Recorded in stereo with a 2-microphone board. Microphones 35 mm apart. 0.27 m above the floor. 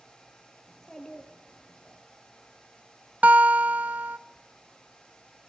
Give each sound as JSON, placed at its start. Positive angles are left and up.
{"t": 0.7, "sound": "a child speaking", "side_deg": 15, "distance_m": 4.0}
{"t": 3.2, "sound": "a guitar", "side_deg": -45, "distance_m": 0.7}